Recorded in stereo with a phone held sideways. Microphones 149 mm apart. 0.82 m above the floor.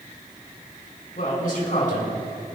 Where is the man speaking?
70° left (ahead or behind), 4.5 m.